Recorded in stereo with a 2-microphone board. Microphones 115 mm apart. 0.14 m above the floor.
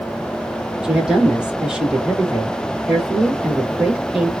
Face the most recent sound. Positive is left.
turn(degrees=-5)  # may be behind; listen again after turning